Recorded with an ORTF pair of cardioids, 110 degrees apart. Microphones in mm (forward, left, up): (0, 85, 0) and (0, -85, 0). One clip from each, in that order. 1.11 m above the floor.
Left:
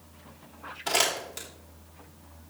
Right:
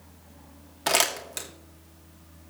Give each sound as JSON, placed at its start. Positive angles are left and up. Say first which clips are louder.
{"t": 0.9, "sound": "crumpling", "louder": "right 2 dB", "azimuth_deg": -55, "distance_m": 2.0}